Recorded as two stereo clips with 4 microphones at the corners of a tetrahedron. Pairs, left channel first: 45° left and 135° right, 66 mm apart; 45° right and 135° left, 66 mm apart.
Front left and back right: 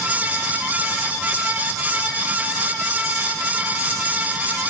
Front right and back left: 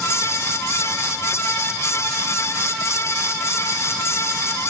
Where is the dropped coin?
No dropped coin in this recording.